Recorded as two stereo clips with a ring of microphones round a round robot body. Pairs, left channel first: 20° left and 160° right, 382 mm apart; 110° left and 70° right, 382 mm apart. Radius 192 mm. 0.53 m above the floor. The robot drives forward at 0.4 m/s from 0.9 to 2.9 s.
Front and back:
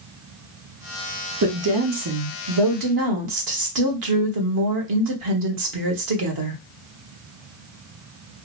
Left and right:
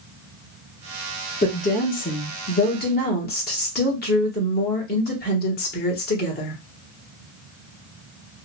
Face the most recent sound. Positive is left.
turn(degrees=175)